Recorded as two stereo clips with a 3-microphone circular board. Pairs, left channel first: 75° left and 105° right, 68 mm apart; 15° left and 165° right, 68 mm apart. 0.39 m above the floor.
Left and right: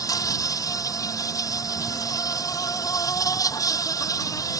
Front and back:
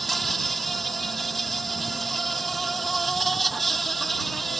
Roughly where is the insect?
Left.